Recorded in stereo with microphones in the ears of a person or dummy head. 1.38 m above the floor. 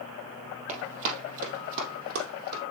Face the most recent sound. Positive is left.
turn(degrees=-50)  # may be behind; listen again after turning